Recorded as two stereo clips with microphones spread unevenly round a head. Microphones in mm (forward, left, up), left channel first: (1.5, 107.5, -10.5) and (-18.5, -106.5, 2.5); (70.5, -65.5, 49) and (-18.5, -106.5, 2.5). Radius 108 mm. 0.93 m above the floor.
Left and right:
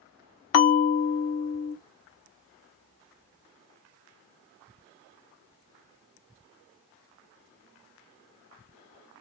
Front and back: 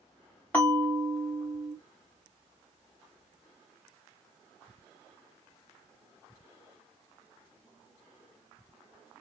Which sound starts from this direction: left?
A bell, at 0.5 s.